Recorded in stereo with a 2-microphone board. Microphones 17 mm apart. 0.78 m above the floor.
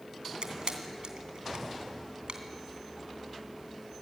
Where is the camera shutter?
70° right (ahead or behind), 2.5 m.